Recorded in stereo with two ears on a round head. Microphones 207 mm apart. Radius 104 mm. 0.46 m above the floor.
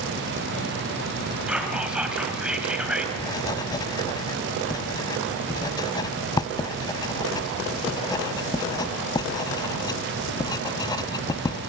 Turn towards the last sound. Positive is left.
turn(degrees=20)  # may be behind; listen again after turning